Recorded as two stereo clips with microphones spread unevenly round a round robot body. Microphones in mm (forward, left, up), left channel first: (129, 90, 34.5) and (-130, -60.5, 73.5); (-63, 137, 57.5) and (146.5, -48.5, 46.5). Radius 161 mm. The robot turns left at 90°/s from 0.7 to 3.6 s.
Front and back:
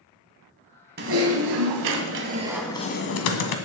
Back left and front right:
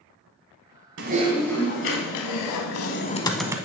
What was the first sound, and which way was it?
Typing on a keyboard, 90° right.